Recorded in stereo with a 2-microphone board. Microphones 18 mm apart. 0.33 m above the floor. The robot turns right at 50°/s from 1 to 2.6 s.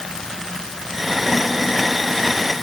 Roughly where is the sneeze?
I don't hear a sneeze.